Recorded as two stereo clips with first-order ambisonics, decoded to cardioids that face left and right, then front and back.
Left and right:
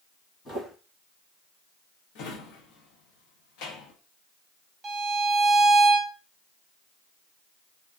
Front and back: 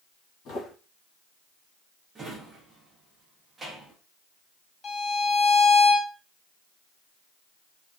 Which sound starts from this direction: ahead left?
Footsteps, at 0.5 s.